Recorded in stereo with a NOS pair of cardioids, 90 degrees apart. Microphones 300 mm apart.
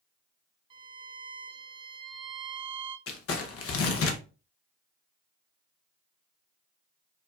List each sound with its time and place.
0.7 s a violin: 15° right, 1.0 m
3.1 s crumpling: 50° left, 0.9 m